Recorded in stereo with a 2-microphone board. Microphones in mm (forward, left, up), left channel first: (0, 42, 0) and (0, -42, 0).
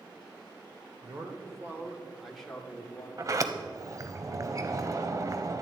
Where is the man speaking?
45° right (ahead or behind), 1.4 m; by 3.1 s 30° left (ahead or behind), 1.2 m.